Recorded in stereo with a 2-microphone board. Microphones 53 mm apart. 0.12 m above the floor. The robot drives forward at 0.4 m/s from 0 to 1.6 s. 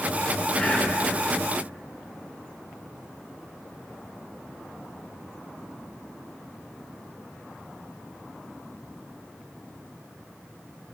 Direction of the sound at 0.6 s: 20° left (ahead or behind).